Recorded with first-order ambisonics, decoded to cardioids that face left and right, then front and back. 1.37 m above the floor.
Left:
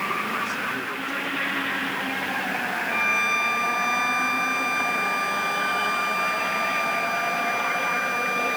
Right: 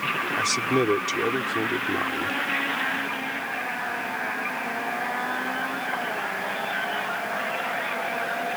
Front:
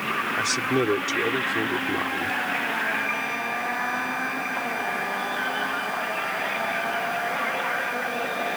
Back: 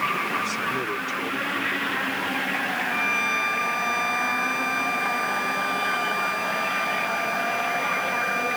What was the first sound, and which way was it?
A man speaking, 55° right.